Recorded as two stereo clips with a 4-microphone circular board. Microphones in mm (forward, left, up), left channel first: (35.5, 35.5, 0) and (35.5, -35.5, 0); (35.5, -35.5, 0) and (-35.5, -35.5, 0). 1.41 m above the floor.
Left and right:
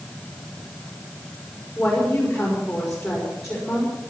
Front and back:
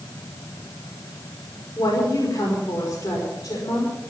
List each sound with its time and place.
1.8 s a woman speaking: 10° left, 4.5 m